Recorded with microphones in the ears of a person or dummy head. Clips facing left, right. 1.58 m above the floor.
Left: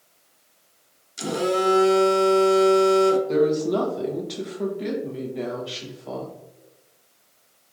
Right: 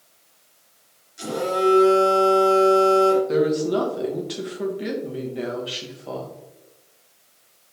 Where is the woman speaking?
10° right (ahead or behind), 1.0 m.